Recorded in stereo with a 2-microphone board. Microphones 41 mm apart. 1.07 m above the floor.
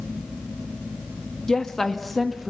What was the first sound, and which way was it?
A woman speaking, 15° left (ahead or behind).